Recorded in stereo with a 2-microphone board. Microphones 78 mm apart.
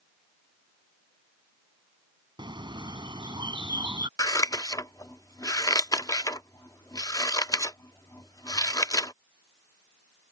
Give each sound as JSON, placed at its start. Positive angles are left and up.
{"t": 2.4, "sound": "a bird", "side_deg": -80}
{"t": 4.2, "sound": "scissors", "side_deg": 50}